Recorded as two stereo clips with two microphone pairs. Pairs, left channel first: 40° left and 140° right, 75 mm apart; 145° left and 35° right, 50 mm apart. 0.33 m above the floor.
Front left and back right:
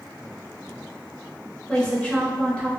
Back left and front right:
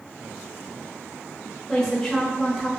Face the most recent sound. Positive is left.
turn(degrees=80)